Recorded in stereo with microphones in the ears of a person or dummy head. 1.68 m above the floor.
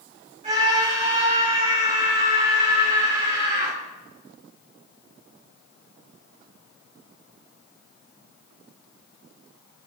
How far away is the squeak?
I don't hear a squeak.